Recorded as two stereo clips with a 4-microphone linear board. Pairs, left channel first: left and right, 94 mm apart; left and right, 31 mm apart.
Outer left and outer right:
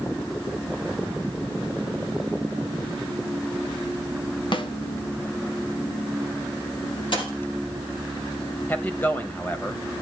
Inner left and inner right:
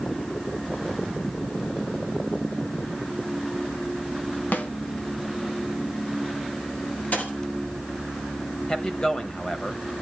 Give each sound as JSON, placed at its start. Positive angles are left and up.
{"t": 4.5, "sound": "a snare drum", "side_deg": 60, "distance_m": 1.5}
{"t": 7.1, "sound": "a dropped coin", "side_deg": 60, "distance_m": 4.0}
{"t": 8.7, "sound": "a man speaking", "side_deg": 20, "distance_m": 1.2}